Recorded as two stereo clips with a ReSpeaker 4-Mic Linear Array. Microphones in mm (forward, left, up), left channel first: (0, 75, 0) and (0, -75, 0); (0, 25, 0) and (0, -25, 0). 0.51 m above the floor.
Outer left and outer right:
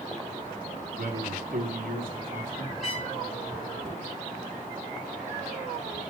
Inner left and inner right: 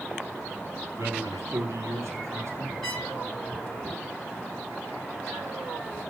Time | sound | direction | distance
0.9 | a man speaking | 75° right (ahead or behind) | 3.5 m
2.8 | a trumpet | centre (ahead or behind) | 5 m